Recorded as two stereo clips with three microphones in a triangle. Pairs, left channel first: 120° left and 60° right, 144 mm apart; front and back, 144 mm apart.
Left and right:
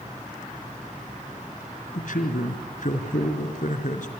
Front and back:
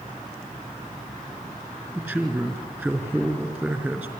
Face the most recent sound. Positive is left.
turn(degrees=105)